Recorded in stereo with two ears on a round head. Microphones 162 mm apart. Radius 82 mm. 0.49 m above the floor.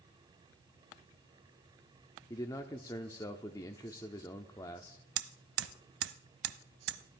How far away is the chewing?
I don't hear chewing.